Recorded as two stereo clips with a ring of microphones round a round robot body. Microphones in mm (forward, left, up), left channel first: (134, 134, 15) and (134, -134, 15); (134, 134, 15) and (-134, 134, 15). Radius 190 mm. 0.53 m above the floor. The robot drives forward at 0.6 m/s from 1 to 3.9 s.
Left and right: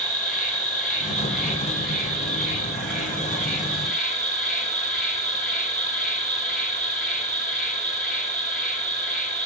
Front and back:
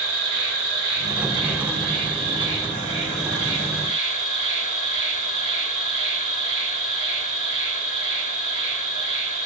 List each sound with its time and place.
0.0 s an insect: straight behind, 4 m